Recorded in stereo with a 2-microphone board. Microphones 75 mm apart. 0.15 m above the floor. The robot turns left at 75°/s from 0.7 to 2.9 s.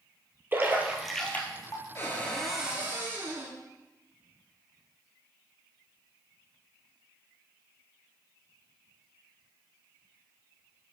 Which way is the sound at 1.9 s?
40° left.